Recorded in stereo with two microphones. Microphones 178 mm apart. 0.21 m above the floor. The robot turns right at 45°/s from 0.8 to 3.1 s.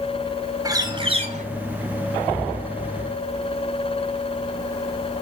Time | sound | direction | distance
0.7 | a bird | 20° right (ahead or behind) | 1.0 m